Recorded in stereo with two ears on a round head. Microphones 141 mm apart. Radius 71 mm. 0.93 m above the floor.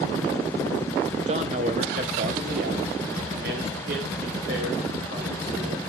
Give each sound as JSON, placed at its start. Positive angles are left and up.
{"t": 1.3, "sound": "a man speaking", "side_deg": -40, "distance_m": 0.9}